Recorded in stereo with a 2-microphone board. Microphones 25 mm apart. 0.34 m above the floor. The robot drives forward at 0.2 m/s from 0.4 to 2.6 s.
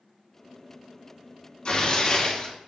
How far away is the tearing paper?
About 1.7 m.